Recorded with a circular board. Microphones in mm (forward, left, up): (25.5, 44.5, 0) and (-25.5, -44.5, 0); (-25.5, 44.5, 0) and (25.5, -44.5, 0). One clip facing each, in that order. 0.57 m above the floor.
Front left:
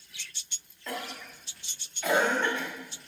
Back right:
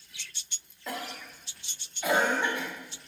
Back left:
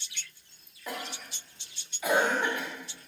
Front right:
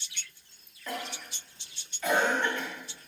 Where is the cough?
Straight behind, 1.0 m.